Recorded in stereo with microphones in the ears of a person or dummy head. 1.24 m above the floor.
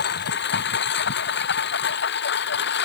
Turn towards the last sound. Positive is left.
turn(degrees=65)  # may be behind; listen again after turning